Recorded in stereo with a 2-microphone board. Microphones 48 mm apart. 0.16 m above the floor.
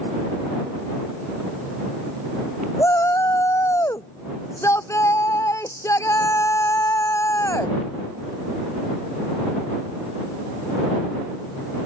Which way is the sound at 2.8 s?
80° left.